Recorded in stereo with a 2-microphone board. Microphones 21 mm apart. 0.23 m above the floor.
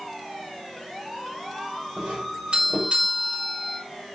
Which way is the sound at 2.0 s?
65° right (ahead or behind).